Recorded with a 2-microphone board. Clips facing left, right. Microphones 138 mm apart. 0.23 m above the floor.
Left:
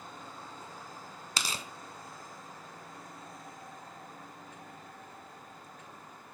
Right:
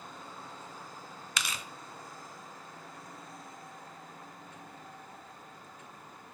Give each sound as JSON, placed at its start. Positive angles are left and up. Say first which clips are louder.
{"t": 1.4, "sound": "tearing paper", "louder": "left 1 dB", "side_deg": 35, "distance_m": 0.5}